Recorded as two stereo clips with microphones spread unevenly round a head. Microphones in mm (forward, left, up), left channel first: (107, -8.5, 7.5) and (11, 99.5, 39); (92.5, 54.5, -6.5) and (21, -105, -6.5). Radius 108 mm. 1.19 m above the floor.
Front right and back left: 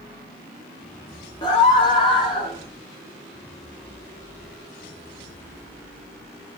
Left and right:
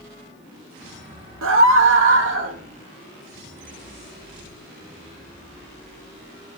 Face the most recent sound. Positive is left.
turn(degrees=-115)